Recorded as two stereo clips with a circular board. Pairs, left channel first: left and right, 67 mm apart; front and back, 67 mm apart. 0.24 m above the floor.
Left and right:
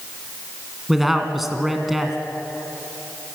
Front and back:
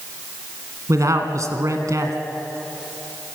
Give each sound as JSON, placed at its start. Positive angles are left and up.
{"t": 0.9, "sound": "a man speaking", "azimuth_deg": 180, "distance_m": 2.5}